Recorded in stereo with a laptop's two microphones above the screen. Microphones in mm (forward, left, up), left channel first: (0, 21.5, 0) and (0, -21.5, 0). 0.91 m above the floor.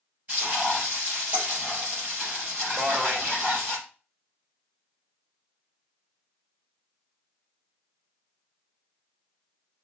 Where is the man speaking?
45° right (ahead or behind), 1.2 m.